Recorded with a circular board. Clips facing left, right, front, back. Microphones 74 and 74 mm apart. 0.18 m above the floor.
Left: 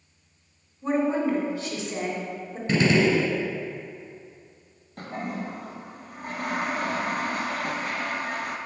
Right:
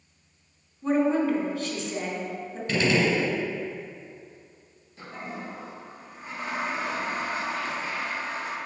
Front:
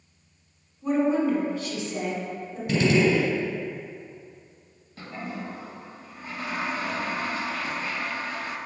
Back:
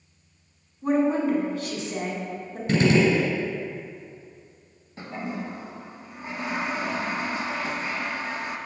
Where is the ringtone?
I don't hear a ringtone.